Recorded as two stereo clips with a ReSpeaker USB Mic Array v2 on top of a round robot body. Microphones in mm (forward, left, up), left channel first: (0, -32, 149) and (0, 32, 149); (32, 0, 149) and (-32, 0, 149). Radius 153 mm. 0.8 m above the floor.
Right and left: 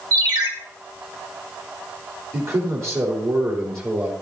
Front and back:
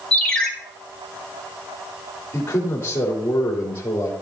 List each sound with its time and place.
0.1 s a ringtone: 80° left, 2.5 m
2.3 s a man speaking: 55° left, 3 m